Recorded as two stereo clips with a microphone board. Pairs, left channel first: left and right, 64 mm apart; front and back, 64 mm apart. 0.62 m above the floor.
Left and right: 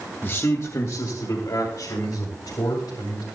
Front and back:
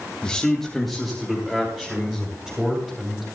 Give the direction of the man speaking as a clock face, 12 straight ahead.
10 o'clock.